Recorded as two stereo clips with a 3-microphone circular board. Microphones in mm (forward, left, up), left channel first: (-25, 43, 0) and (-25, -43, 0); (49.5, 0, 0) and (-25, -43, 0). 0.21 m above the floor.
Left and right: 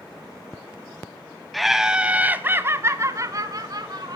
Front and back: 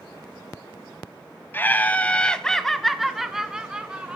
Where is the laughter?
Straight ahead, 1.0 m; by 4.2 s 75° right, 1.7 m.